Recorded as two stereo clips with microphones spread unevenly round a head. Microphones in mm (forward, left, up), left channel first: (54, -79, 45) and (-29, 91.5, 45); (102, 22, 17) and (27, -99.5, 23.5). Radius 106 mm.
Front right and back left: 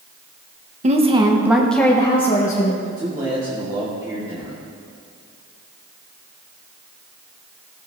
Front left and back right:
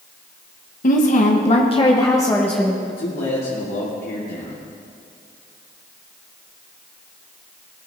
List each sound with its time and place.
0.8 s a woman speaking: 70° left, 1.4 m; by 2.8 s 25° right, 1.6 m
2.9 s a man speaking: 50° left, 2 m